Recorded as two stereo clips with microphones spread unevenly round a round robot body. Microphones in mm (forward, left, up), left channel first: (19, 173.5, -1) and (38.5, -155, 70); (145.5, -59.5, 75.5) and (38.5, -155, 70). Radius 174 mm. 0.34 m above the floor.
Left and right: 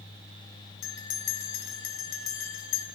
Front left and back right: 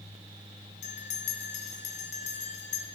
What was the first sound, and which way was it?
A bell, 65° left.